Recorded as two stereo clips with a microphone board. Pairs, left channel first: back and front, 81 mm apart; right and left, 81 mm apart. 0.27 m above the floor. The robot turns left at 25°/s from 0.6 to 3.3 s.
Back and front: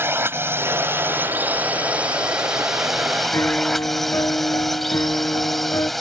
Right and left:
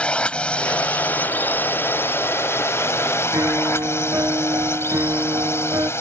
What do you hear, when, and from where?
0.0 s a drone: 25° right; by 6.0 s 95° right
3.3 s a piano: 135° left